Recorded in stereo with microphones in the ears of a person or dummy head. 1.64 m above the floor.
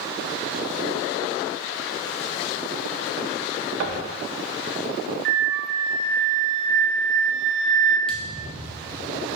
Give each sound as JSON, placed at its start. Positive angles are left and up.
{"t": 3.8, "sound": "knocking", "side_deg": -55, "distance_m": 1.3}
{"t": 5.2, "sound": "a flute", "side_deg": -50, "distance_m": 0.6}
{"t": 8.1, "sound": "a thud", "side_deg": 10, "distance_m": 1.3}